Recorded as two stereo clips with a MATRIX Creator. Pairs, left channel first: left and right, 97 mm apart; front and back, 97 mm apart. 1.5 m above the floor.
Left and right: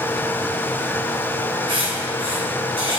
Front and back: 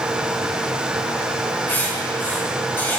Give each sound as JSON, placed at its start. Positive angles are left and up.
{"t": 1.7, "sound": "writing", "azimuth_deg": -70, "distance_m": 3.0}